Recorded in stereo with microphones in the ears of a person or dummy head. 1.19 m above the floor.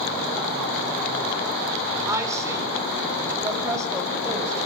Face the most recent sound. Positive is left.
turn(degrees=-15)  # may be behind; listen again after turning